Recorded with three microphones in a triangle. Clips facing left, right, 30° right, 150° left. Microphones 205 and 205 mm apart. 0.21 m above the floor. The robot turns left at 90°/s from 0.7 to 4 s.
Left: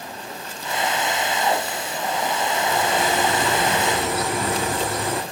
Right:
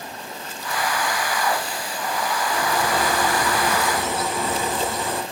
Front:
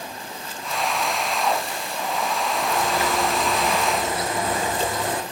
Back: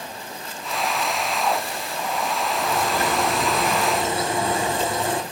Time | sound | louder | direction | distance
2.5 | a bird | even, even | 135° right | 1.6 m